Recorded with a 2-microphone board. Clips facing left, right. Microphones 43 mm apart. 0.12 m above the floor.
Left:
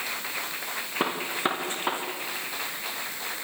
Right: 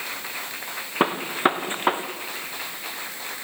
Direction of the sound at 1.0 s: 30° right (ahead or behind).